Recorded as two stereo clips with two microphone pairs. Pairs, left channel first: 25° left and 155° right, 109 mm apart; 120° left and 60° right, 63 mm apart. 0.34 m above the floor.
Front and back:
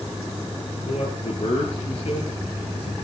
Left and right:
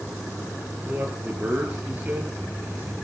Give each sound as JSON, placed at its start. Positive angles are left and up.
{"t": 0.8, "sound": "a man speaking", "azimuth_deg": 0, "distance_m": 5.0}